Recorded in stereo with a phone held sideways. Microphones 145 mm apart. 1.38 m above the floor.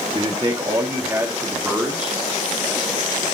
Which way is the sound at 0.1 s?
35° right (ahead or behind).